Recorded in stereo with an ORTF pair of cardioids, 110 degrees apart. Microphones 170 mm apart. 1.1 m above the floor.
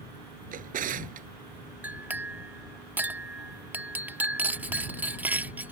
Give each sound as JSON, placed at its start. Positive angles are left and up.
{"t": 0.5, "sound": "a drawer", "azimuth_deg": -55}
{"t": 1.8, "sound": "a clink", "azimuth_deg": -10}